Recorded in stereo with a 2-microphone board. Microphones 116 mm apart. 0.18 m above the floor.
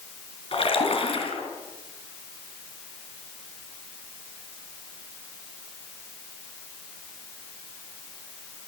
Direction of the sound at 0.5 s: 50° left (ahead or behind).